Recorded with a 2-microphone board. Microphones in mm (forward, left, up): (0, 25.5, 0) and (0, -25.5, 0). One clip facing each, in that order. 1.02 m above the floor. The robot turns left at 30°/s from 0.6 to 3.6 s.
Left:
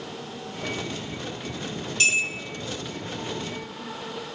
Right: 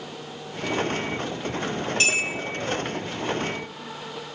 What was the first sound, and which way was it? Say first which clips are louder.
A clink: left 1 dB; 40° right (ahead or behind).